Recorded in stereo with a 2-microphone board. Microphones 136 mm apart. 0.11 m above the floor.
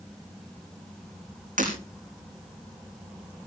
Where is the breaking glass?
75° right (ahead or behind), 4.5 m.